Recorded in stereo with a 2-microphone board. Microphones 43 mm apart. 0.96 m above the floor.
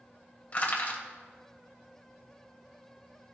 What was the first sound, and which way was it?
Crushing, 35° left (ahead or behind).